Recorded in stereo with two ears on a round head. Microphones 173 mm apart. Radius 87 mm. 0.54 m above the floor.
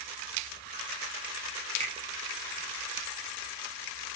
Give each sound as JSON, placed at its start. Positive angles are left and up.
{"t": 1.8, "sound": "a finger snap", "side_deg": -35, "distance_m": 0.6}